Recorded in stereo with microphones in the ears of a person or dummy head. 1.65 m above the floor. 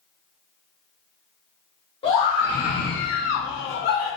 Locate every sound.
2.0 s a scream: 35° left (ahead or behind), 1.1 m; by 4.2 s 50° left (ahead or behind), 0.9 m